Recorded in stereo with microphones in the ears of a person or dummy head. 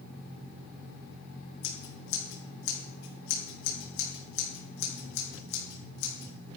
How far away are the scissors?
About 5.5 m.